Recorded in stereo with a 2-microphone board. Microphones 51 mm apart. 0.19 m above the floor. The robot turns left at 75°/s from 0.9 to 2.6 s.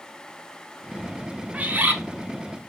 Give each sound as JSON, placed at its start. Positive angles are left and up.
{"t": 1.5, "sound": "a bird", "azimuth_deg": -35, "distance_m": 0.7}